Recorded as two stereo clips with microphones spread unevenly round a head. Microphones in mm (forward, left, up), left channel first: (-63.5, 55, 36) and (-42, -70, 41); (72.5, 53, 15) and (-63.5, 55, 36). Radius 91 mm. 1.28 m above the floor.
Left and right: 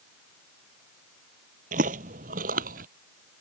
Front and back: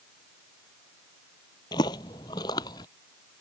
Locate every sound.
1.7 s footsteps: 75° right